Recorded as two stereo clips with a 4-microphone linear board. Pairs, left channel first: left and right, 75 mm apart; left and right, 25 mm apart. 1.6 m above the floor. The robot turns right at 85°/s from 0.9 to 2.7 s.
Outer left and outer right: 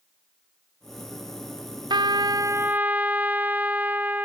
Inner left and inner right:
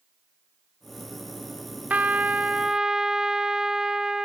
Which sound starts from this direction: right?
A trumpet, at 1.9 s.